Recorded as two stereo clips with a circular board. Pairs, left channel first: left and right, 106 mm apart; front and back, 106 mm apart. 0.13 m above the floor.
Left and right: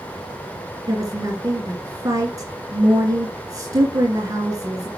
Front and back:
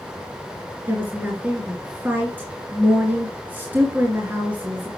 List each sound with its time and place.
0.9 s a woman speaking: 120° right, 2 m